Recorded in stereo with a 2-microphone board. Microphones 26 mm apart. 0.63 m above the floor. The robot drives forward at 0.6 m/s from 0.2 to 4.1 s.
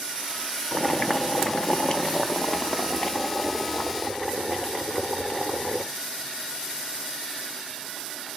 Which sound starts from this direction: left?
Boiling, at 0.7 s.